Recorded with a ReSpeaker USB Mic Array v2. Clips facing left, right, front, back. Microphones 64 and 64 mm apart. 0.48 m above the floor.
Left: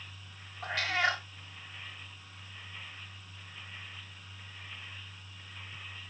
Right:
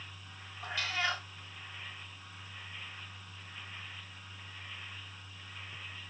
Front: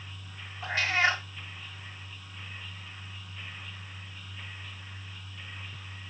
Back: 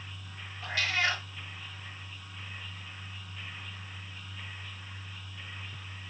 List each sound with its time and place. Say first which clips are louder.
0.6 s a cat meowing: left 4 dB, front 4 dB; 60° left, 1.3 m